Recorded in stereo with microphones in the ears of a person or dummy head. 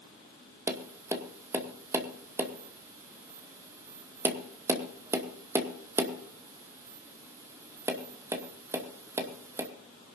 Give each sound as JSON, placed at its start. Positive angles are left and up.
{"t": 0.7, "sound": "tapping", "side_deg": -10, "distance_m": 2.0}